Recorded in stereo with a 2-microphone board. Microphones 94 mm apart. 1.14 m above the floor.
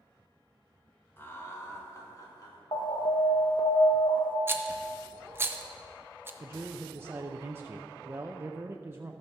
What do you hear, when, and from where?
1.2 s laughter: 25° left (ahead or behind), 1.8 m; by 2.6 s 45° left (ahead or behind), 2.5 m
2.7 s an alarm: 55° left (ahead or behind), 1.3 m
4.5 s a rattle: 25° right (ahead or behind), 0.7 m
6.4 s a man speaking: 25° right (ahead or behind), 0.6 m